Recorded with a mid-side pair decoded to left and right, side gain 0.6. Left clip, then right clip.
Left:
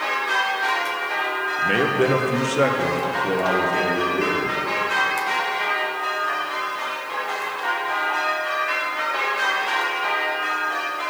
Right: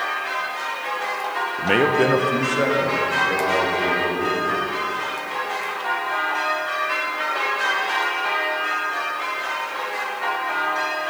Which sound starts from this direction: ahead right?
A man speaking, at 1.6 s.